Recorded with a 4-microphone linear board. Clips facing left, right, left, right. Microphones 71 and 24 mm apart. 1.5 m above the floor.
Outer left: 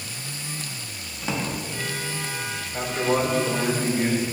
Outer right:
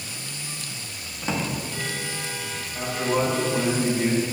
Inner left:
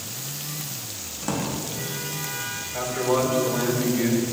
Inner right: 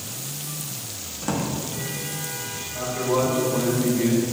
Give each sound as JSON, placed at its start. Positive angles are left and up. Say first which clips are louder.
{"t": 1.2, "sound": "a drawer", "louder": "outer right 1 dB, inner right 1 dB", "side_deg": 0, "distance_m": 1.4}
{"t": 2.7, "sound": "a man speaking", "louder": "outer left 1 dB, even", "side_deg": 80, "distance_m": 3.0}